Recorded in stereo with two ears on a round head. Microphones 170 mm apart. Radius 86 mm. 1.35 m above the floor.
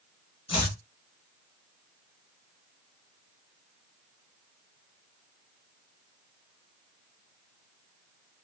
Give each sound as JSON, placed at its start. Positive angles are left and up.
{"t": 0.5, "sound": "chopping", "side_deg": 25, "distance_m": 1.0}